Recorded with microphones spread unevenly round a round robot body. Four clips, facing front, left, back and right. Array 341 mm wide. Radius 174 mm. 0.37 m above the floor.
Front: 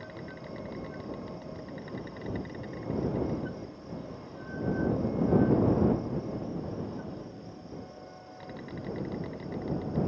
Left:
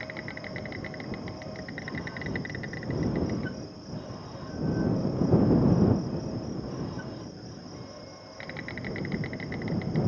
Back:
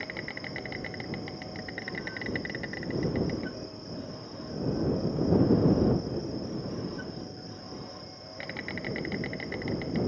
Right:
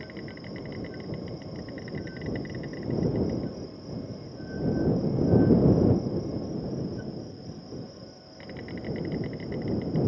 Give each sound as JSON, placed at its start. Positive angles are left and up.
{"t": 0.0, "sound": "an insect", "azimuth_deg": 150}